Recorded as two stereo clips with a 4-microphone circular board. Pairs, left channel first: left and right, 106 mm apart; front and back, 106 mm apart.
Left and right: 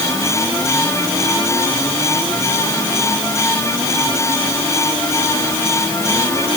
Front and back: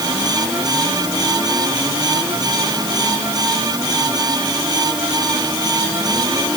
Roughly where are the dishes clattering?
I don't hear dishes clattering.